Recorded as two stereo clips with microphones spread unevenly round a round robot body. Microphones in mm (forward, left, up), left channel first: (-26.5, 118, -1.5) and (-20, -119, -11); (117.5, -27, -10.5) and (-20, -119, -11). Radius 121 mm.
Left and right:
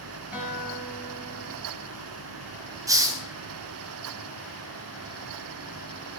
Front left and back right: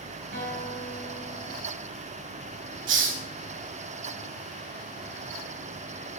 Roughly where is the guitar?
Behind.